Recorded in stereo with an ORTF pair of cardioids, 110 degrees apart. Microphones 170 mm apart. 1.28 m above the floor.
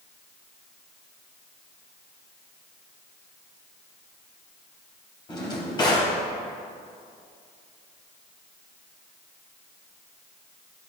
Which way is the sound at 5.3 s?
30° left.